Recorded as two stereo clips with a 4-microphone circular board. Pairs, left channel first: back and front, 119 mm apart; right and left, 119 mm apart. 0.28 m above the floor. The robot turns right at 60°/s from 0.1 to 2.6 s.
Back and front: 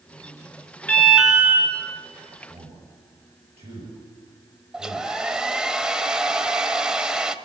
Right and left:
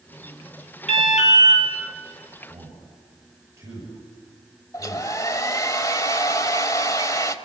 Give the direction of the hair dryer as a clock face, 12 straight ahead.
3 o'clock.